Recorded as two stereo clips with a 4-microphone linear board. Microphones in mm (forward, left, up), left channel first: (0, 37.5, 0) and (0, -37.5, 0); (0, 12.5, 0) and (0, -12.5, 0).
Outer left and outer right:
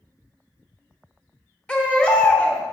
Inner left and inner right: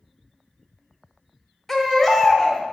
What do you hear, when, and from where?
1.7 s a baby crying: 15° left (ahead or behind), 0.9 m